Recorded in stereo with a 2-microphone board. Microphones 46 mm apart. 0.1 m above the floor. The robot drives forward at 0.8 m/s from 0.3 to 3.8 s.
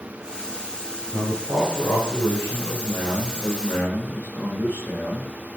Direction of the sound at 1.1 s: 65° left (ahead or behind).